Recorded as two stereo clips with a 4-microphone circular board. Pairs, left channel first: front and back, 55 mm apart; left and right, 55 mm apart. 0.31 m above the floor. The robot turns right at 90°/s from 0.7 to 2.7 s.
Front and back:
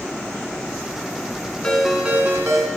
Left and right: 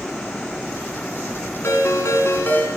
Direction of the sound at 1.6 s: 70° left.